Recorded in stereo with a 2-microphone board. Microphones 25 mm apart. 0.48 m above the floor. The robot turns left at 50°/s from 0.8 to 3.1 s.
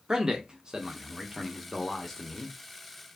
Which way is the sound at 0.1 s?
130° right.